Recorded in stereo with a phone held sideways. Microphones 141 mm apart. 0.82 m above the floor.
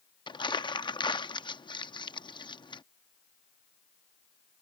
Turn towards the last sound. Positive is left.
turn(degrees=35)  # may be behind; listen again after turning